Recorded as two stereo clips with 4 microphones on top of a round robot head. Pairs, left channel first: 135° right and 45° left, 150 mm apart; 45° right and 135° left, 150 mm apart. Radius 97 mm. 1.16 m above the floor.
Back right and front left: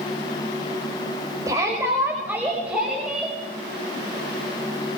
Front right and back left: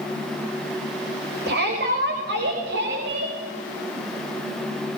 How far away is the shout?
About 5.5 m.